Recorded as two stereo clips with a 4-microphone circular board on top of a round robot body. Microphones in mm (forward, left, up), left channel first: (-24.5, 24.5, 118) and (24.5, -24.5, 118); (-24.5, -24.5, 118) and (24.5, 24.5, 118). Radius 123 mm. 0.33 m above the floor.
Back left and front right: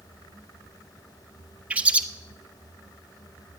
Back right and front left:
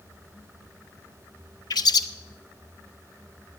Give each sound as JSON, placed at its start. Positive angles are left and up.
{"t": 1.7, "sound": "a bird", "azimuth_deg": -115, "distance_m": 0.7}